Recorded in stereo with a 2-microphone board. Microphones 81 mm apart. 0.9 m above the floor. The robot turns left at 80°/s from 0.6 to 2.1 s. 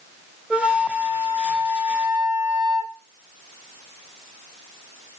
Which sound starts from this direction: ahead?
A flute, at 0.5 s.